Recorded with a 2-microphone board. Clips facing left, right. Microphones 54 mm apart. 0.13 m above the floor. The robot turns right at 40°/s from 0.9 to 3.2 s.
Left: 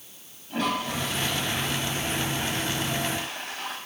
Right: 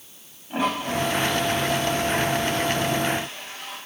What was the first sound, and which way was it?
A toilet flushing, 20° right.